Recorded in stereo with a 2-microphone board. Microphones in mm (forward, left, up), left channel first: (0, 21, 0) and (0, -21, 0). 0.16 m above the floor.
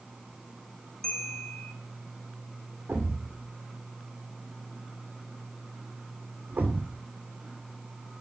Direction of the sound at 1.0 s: 10° left (ahead or behind).